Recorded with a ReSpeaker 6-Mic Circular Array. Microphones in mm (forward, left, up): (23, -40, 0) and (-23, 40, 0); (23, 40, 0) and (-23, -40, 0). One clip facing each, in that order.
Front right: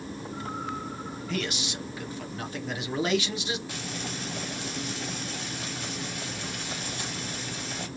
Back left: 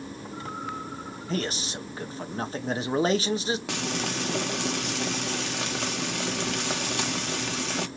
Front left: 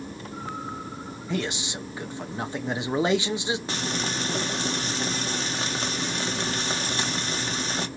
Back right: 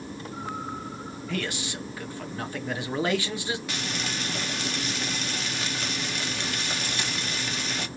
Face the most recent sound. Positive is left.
turn(degrees=115)